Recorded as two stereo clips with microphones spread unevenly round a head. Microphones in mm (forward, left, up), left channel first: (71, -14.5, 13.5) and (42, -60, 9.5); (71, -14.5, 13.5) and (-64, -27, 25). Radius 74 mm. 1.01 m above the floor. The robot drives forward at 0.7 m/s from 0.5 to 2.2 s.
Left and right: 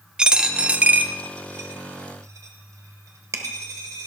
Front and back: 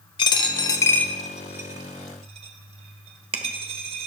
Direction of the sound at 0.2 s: 50° right.